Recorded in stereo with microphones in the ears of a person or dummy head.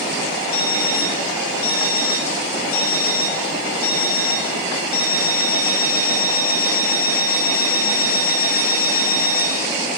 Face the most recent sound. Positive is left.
turn(degrees=55)  # may be behind; listen again after turning